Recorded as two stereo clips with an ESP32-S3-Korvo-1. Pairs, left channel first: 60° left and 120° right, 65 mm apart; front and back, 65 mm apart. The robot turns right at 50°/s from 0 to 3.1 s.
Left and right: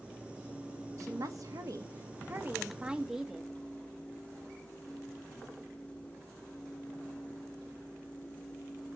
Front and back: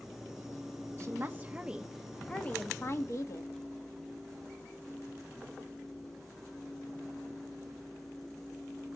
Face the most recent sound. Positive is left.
turn(degrees=-35)